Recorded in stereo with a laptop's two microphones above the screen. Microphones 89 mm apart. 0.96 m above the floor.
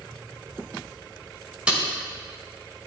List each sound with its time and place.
1.7 s tape being pulled: 10° right (ahead or behind), 2 m